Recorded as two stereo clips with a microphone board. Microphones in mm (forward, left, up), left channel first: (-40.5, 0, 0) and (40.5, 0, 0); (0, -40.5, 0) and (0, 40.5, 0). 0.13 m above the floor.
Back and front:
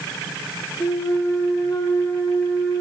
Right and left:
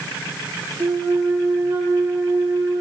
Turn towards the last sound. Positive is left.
turn(degrees=150)